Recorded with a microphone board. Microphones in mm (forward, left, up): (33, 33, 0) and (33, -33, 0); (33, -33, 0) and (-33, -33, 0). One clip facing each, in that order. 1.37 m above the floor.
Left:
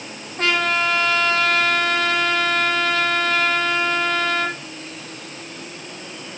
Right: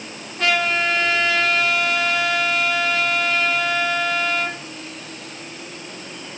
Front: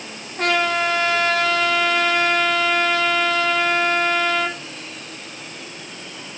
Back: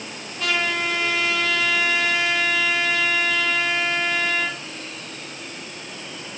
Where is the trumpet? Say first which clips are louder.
Even, front 5 dB; 40° left, 5 m.